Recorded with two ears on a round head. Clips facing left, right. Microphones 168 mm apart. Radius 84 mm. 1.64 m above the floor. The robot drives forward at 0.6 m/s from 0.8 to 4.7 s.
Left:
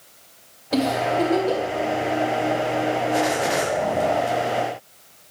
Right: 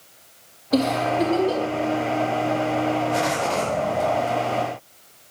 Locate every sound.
0.7 s a giggle: 40° left (ahead or behind), 4.5 m; by 1.6 s 45° left (ahead or behind), 4.5 m